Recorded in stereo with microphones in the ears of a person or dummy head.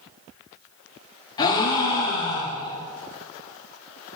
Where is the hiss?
No hiss in this recording.